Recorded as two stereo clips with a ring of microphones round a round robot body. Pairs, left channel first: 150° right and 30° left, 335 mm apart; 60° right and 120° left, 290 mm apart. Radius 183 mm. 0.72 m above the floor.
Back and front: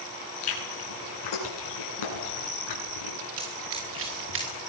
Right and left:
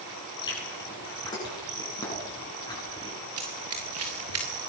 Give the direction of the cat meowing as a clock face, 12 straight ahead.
No cat meowing in this recording.